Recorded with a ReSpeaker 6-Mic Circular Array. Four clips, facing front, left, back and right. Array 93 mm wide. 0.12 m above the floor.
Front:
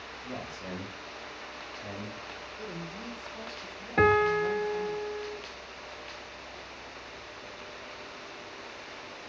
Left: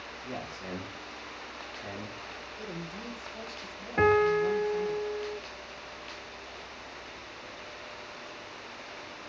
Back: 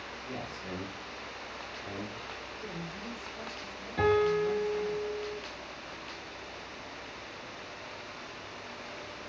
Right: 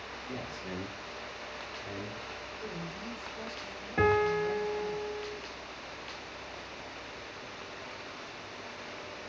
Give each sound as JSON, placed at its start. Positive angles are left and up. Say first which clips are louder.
{"t": 0.2, "sound": "a man speaking", "louder": "left 2 dB, front 1 dB", "azimuth_deg": 55, "distance_m": 7.0}
{"t": 2.6, "sound": "a woman speaking", "louder": "left 2 dB, front 3 dB", "azimuth_deg": 65, "distance_m": 4.0}
{"t": 4.0, "sound": "a piano", "louder": "left 3 dB, front 2 dB", "azimuth_deg": 10, "distance_m": 0.8}